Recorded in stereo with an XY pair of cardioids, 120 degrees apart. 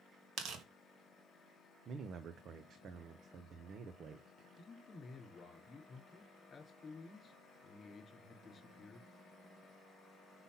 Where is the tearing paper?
65° right, 1.7 m.